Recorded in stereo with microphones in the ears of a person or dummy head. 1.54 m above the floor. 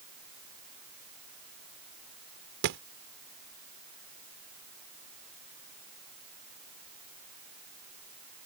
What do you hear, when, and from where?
2.6 s a thud: 60° right (ahead or behind)